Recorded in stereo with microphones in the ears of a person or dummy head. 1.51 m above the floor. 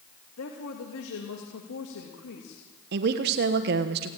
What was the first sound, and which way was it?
A woman speaking, 80° left.